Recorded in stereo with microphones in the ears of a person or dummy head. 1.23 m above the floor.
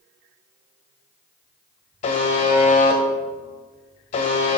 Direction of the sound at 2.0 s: 30° left (ahead or behind).